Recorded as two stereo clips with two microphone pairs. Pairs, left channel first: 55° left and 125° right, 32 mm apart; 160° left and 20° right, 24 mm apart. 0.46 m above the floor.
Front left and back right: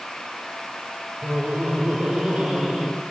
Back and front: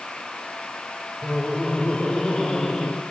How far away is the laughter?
About 1.8 m.